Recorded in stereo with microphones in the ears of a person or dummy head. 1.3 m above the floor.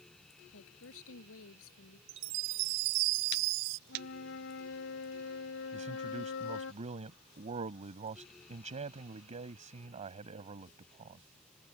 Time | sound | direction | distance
0.5 | a woman speaking | 75° left (ahead or behind) | ?
2.1 | a chime | 80° right | ?
3.9 | a flute | 70° left (ahead or behind) | ?
5.7 | a man speaking | 35° right (ahead or behind) | ?